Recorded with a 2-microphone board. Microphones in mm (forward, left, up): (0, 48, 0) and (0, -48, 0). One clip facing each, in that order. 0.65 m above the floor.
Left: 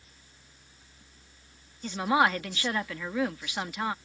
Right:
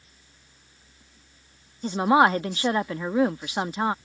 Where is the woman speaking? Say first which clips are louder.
Right 6 dB; 30° right (ahead or behind).